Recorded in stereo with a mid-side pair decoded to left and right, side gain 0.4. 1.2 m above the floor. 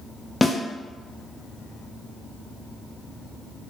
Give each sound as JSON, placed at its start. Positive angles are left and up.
{"t": 0.4, "sound": "a snare drum", "azimuth_deg": 20, "distance_m": 0.6}